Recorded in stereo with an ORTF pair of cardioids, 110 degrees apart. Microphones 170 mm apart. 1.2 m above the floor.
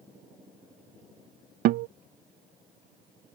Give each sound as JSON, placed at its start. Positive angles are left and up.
{"t": 1.6, "sound": "a guitar", "azimuth_deg": -65}